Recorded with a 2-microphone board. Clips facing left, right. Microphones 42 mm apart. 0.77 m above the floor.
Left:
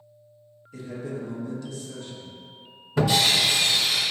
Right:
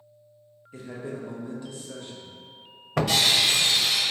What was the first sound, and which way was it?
A man speaking, 25° right (ahead or behind).